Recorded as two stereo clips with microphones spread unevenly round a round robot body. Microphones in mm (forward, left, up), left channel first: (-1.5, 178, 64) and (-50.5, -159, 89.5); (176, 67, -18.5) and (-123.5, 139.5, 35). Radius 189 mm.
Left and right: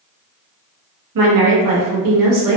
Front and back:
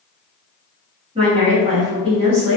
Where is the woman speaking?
115° right, 0.9 m.